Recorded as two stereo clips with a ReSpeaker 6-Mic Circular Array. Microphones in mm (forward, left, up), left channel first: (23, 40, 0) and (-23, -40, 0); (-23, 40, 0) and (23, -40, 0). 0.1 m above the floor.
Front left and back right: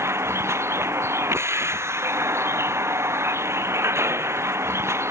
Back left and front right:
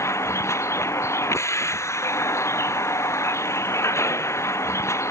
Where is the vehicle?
Straight behind.